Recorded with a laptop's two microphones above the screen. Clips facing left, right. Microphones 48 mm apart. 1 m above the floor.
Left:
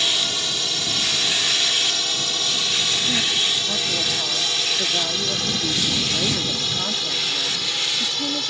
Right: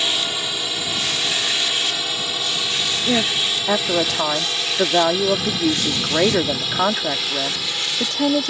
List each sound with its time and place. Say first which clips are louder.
0.0 s a drone: right 1 dB; 15° right (ahead or behind); by 8.5 s 5° right (ahead or behind)
3.1 s a woman speaking: right 6 dB; 55° right (ahead or behind)